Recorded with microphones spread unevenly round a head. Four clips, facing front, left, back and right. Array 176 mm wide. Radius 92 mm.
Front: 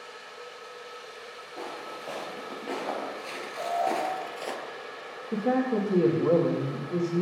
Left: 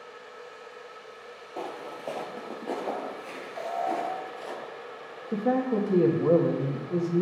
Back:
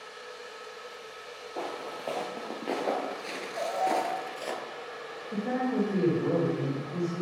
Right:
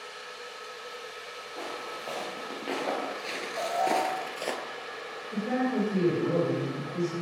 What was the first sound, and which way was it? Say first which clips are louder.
Footsteps: left 2 dB, back 2 dB; 140° left.